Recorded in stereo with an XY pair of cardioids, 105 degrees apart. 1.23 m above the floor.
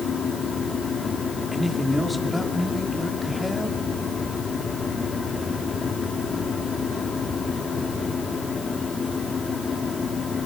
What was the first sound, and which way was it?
A fan, 35° left.